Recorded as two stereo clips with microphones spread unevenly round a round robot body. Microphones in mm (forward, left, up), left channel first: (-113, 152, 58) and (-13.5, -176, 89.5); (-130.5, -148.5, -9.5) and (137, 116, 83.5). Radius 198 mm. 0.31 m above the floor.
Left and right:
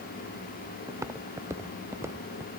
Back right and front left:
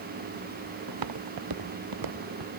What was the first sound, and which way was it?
Footsteps, 10° left.